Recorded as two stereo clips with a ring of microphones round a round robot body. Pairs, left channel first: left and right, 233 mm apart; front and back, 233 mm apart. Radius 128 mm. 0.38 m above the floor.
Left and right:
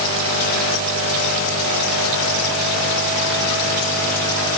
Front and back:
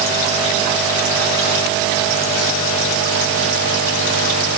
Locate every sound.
Only background noise.